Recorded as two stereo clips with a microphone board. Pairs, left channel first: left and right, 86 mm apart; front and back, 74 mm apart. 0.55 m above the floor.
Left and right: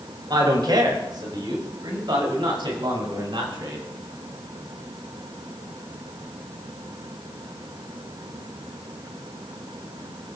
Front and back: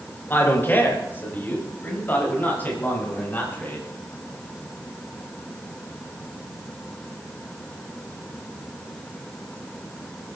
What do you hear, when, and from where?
0.3 s a man speaking: 60° right, 3.5 m; by 3.8 s 65° right, 7 m